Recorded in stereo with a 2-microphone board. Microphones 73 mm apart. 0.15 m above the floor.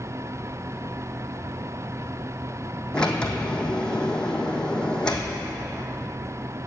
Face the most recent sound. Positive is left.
turn(degrees=15)  # may be behind; listen again after turning